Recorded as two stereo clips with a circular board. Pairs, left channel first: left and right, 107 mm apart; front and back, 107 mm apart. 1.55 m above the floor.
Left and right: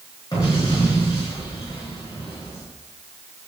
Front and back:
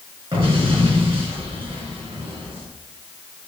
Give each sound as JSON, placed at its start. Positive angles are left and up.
{"t": 0.3, "sound": "an explosion", "azimuth_deg": 145, "distance_m": 4.5}